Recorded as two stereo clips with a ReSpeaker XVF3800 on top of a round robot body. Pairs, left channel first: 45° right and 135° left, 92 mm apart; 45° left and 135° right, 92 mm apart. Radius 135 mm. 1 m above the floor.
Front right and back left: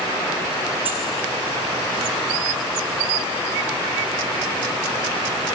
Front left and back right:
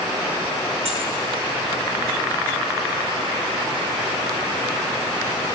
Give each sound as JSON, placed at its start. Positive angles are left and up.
{"t": 0.8, "sound": "keys jangling", "azimuth_deg": -150, "distance_m": 4.5}